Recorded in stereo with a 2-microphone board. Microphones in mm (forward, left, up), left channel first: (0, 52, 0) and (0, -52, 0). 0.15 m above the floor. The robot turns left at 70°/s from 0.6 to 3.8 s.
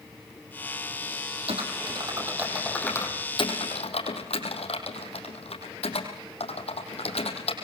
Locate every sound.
1.5 s typing on a keyboard: 70° right (ahead or behind), 4.5 m; by 7.5 s 75° left (ahead or behind), 4.5 m